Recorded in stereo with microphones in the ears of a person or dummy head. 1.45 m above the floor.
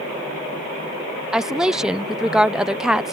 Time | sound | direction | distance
1.3 | a woman speaking | 5° right (ahead or behind) | ?